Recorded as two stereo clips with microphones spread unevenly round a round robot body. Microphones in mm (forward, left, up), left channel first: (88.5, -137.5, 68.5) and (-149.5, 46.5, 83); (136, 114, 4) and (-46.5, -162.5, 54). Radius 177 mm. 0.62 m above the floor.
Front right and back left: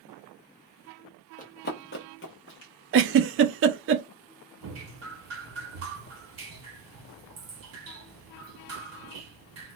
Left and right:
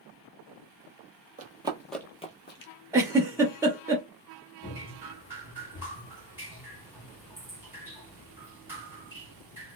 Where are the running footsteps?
90° right, 0.7 m; by 2.7 s 10° left, 0.8 m.